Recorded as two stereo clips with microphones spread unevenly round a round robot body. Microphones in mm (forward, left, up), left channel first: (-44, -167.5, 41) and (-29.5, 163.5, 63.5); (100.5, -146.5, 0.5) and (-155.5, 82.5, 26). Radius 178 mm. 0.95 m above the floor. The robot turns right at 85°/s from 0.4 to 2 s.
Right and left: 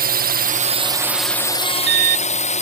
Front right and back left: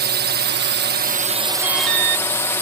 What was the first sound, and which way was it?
A drone, 115° left.